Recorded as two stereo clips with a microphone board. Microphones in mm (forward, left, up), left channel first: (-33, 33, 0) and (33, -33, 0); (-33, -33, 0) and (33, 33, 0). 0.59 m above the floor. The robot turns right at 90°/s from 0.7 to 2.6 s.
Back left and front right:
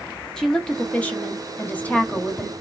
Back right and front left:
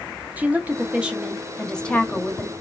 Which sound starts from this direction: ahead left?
A woman speaking, at 0.4 s.